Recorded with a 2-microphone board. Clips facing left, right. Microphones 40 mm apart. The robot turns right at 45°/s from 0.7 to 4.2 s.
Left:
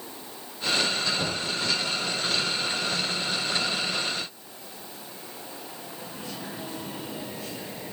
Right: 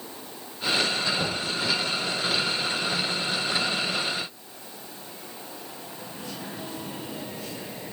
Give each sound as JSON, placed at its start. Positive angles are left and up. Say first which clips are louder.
{"t": 1.2, "sound": "knocking", "louder": "right 1 dB", "side_deg": -10, "distance_m": 7.0}